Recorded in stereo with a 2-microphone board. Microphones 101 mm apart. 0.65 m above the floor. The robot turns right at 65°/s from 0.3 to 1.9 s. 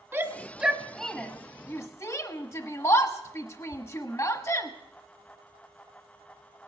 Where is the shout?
20° right (ahead or behind), 1.1 m; by 4.7 s 30° left (ahead or behind), 1.1 m.